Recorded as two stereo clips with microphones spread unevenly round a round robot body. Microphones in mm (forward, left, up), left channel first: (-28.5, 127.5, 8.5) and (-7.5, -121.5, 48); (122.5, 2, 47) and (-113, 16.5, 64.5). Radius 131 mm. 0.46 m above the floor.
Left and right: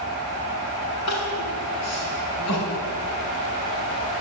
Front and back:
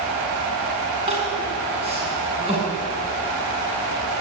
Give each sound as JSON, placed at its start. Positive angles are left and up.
{"t": 1.1, "sound": "crying", "azimuth_deg": 110, "distance_m": 6.0}